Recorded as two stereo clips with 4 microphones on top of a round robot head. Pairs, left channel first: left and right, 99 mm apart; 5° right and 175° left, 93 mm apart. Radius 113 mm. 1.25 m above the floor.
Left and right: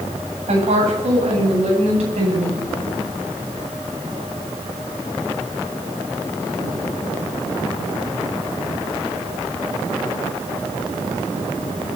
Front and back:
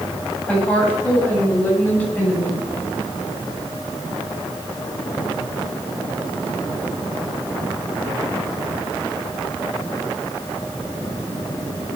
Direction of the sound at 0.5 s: 85° right.